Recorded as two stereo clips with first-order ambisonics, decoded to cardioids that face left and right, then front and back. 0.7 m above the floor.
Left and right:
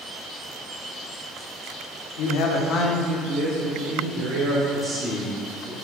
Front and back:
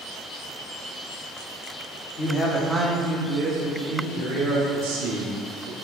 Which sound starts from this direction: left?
A man speaking, at 2.2 s.